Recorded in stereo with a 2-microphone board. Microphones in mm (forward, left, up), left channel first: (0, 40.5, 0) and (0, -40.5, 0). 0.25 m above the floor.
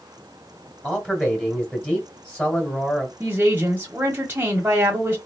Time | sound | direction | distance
0.8 | a man speaking | 10° left (ahead or behind) | 1.7 m
3.2 | a woman speaking | 25° right (ahead or behind) | 1.2 m